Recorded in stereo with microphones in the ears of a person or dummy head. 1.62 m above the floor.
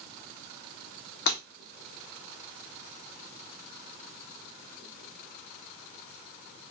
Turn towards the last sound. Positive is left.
turn(degrees=55)  # may be behind; listen again after turning